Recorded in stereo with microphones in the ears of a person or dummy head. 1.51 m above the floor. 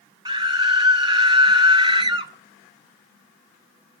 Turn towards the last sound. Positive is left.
turn(degrees=-20)  # may be behind; listen again after turning